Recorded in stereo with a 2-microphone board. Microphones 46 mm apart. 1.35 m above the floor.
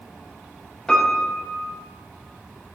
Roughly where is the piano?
Centre.